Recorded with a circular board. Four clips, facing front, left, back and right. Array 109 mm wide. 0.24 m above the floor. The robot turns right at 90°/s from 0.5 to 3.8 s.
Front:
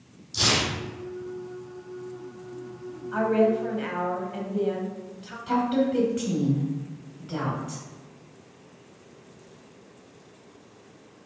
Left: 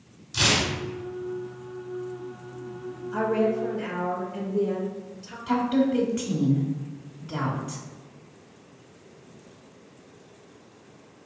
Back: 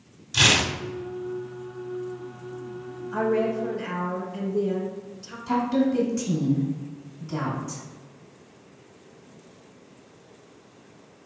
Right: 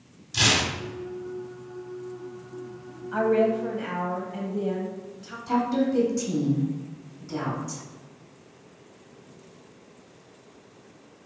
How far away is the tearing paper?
About 0.7 m.